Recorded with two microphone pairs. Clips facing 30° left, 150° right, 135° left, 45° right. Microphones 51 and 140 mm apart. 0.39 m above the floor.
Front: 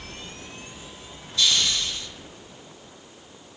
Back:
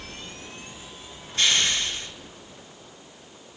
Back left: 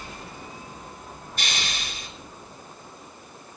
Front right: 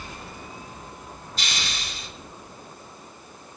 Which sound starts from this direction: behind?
A hiss, at 1.4 s.